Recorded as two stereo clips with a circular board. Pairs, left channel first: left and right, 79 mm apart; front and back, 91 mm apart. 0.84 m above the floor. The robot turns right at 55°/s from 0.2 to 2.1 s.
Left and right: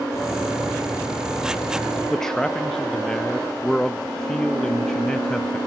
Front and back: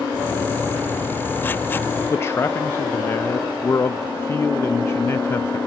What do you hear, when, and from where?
2.1 s a man speaking: 15° left, 0.5 m